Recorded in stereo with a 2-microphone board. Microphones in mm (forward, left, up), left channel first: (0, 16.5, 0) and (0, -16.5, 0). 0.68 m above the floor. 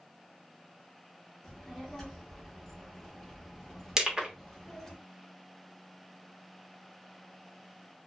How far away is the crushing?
About 0.9 m.